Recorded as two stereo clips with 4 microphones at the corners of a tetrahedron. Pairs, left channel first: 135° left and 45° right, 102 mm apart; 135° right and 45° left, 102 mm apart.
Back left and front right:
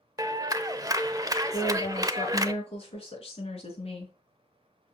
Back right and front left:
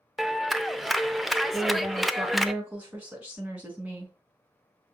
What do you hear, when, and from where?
0.2 s a clap: 45° right, 0.6 m
1.5 s a woman speaking: 120° left, 4.5 m